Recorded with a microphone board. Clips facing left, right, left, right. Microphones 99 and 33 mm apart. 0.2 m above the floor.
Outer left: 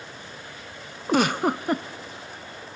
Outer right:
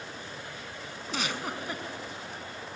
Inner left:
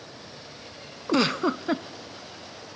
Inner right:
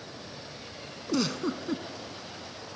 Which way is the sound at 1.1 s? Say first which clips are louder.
Outer left 13 dB, inner left 6 dB; 55° left (ahead or behind).